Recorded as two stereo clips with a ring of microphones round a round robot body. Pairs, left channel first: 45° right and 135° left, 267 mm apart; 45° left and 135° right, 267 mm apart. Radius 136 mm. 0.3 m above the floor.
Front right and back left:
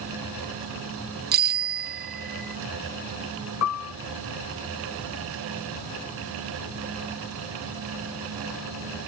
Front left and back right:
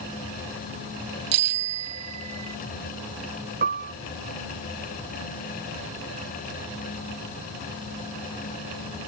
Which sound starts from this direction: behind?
A bicycle bell, at 1.3 s.